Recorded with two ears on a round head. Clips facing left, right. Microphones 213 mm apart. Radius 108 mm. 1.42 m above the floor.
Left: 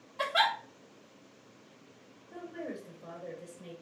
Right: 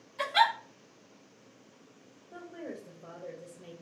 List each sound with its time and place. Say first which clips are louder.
0.2 s a giggle: right 2 dB; 75° right (ahead or behind), 1.4 m
2.3 s a woman speaking: left 2 dB; 20° right (ahead or behind), 0.9 m